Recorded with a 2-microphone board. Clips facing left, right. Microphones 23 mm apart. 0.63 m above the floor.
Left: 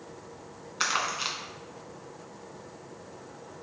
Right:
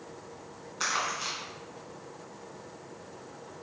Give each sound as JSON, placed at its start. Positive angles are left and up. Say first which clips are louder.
{"t": 0.8, "sound": "crumpling", "louder": "left 2 dB", "side_deg": 55, "distance_m": 1.6}